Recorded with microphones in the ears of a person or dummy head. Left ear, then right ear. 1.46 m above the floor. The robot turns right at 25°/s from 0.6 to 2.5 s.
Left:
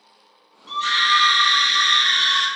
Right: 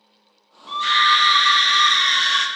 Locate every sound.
0.7 s a scream: 160° right, 0.7 m; by 2.5 s 115° right, 0.7 m